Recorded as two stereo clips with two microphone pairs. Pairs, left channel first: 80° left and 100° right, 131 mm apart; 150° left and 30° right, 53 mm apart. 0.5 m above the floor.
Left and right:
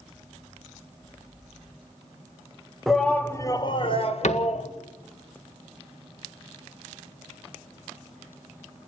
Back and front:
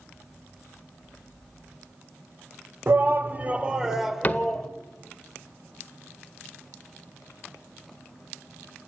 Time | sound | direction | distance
2.9 | a shout | 10° right | 2.0 m
4.2 | a cupboard door | 95° left | 1.6 m